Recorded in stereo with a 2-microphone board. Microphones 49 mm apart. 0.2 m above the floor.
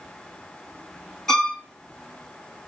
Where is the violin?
10° left (ahead or behind), 1.5 m.